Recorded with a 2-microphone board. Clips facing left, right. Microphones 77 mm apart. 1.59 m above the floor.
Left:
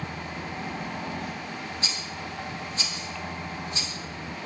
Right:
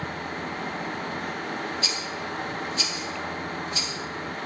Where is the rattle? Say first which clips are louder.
Right 4 dB; 30° left (ahead or behind), 3.5 m.